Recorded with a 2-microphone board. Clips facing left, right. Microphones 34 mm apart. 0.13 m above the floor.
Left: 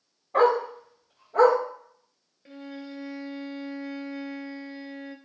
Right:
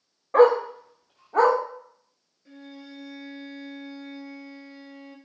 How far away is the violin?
About 0.7 m.